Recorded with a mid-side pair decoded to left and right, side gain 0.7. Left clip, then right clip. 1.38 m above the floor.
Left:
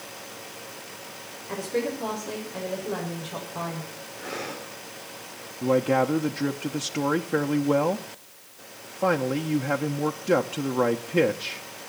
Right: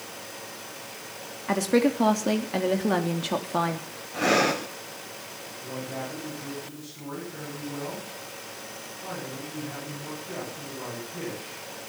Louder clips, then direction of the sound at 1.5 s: Right 5 dB; 60° right.